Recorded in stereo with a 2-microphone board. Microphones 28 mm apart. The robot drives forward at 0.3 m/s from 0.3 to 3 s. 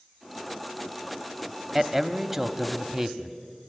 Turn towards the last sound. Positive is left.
turn(degrees=-5)  # may be behind; listen again after turning